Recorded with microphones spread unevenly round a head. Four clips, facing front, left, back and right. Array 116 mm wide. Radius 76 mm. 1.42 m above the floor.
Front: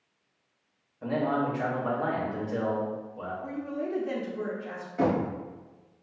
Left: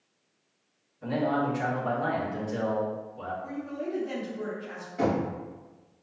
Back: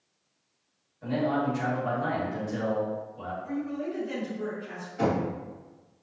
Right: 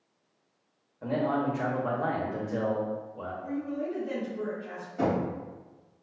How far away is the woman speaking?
About 1.2 m.